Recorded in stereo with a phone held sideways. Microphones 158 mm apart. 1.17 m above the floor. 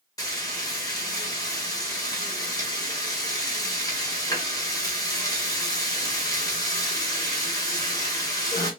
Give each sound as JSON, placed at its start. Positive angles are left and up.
{"t": 0.2, "sound": "frying", "side_deg": 20, "distance_m": 1.4}